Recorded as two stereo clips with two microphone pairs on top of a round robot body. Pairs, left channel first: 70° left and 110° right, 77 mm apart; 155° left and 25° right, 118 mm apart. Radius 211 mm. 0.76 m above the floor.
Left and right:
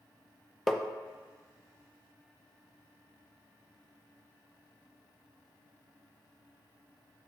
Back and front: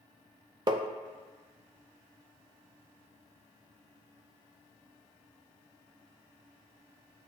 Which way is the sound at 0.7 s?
10° right.